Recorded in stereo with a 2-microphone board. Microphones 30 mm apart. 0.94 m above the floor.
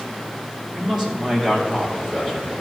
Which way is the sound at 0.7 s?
20° right (ahead or behind).